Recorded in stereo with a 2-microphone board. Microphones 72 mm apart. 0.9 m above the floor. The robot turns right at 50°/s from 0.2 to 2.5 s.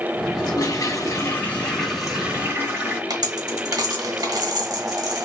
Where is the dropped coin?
65° right (ahead or behind), 1.3 m.